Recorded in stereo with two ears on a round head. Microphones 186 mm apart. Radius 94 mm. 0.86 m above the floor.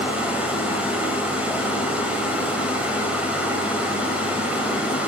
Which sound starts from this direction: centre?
Running water, at 0.0 s.